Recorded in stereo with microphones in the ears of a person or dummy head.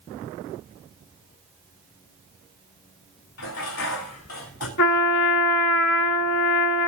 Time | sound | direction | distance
3.4 | dishes clattering | 75° left (ahead or behind) | 3.5 m
4.8 | a trumpet | 70° left (ahead or behind) | 1.6 m